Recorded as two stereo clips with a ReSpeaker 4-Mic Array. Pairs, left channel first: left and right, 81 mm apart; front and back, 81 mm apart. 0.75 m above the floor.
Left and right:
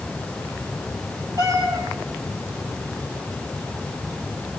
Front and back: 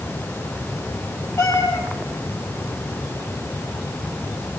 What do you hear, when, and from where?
1.4 s a cat meowing: 55° right, 6.5 m